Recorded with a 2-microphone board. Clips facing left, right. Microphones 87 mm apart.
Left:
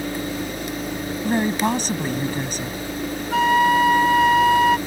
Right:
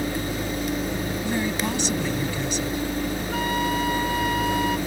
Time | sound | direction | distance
1.2 | a woman speaking | 45° left (ahead or behind) | ?
3.3 | a flute | 80° left | ?